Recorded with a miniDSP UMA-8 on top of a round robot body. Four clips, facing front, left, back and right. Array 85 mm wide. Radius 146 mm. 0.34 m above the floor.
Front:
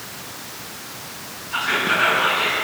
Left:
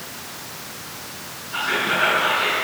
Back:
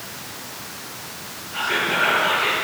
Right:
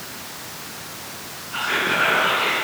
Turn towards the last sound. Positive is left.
turn(degrees=15)